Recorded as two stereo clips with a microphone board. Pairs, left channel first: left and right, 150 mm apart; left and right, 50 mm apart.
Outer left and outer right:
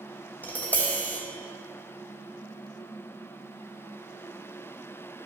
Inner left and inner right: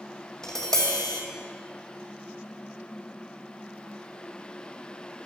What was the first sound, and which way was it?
Tapping, 10° left (ahead or behind).